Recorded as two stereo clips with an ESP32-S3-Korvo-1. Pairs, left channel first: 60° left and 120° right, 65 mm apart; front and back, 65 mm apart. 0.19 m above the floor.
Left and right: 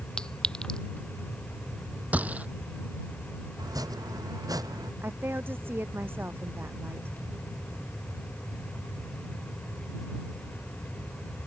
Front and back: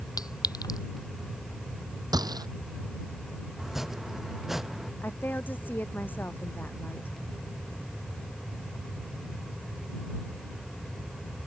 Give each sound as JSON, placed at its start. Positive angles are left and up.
{"t": 0.2, "sound": "a clink", "azimuth_deg": -15}
{"t": 2.1, "sound": "a gunshot", "azimuth_deg": 175}
{"t": 3.6, "sound": "chopping", "azimuth_deg": -95}
{"t": 5.0, "sound": "a woman speaking", "azimuth_deg": -60}